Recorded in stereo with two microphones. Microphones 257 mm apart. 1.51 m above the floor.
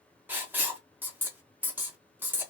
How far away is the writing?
About 0.9 m.